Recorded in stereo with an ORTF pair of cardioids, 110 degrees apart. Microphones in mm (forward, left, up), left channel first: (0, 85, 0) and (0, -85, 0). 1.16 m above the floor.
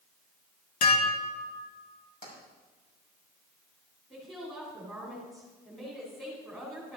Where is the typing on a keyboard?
I don't hear typing on a keyboard.